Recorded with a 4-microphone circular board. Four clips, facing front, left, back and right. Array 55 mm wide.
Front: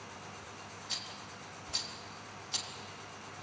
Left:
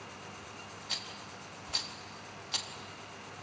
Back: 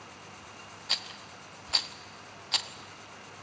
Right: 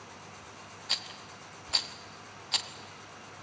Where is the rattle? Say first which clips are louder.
Right 5 dB, back 9 dB; 155° right, 0.9 m.